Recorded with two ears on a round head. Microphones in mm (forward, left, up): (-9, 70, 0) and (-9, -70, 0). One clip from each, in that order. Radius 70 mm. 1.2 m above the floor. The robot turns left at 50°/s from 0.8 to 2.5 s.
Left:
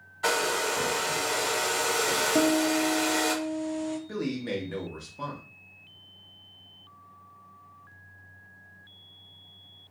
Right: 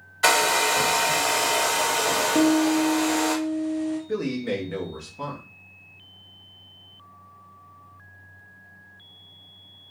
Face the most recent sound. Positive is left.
turn(degrees=10)  # may be behind; listen again after turning